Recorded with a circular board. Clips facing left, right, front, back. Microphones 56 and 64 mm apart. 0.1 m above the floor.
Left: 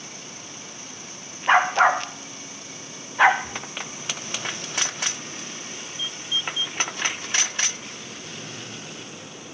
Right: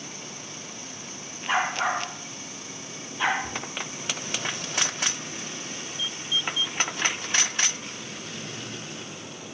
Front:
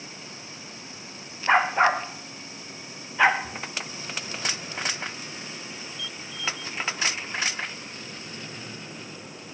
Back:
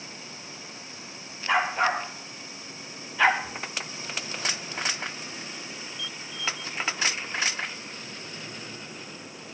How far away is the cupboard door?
About 7 m.